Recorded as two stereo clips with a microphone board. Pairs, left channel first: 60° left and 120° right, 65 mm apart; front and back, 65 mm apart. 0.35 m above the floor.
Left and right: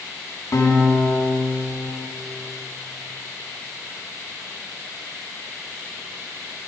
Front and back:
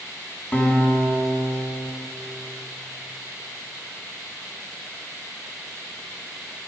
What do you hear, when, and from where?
0.5 s a guitar: 60° left, 3.5 m